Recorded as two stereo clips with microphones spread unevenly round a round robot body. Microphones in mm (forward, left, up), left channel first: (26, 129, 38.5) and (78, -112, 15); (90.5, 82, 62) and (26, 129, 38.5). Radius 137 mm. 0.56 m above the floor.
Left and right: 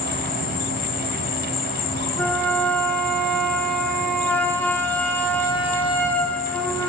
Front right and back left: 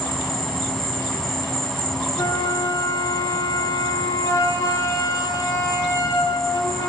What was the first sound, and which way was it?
An insect, 45° left.